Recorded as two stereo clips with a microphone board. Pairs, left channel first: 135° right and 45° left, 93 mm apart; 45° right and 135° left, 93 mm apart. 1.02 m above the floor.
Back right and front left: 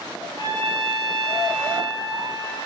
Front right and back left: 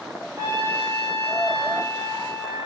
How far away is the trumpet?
About 1.4 m.